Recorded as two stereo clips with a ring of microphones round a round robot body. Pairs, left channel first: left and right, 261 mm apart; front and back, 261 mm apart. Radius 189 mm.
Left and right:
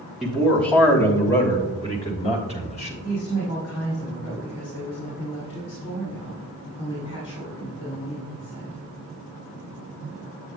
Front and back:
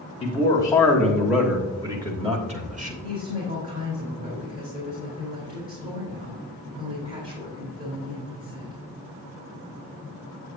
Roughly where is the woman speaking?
Behind left.